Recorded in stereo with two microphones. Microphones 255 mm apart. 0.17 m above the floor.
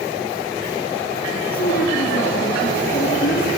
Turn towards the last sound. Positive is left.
turn(degrees=35)  # may be behind; listen again after turning